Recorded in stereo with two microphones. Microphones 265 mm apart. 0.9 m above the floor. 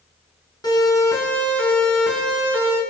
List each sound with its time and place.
0.6 s a siren: 15° left (ahead or behind), 7.5 m; by 2.8 s 10° right (ahead or behind), 7.5 m